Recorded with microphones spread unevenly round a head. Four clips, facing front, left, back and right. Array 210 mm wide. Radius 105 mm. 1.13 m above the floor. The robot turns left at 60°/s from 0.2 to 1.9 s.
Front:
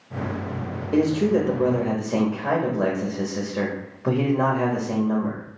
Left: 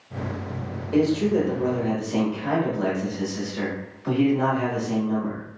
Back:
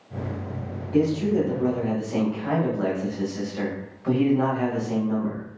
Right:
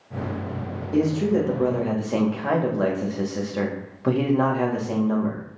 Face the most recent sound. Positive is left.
turn(degrees=-45)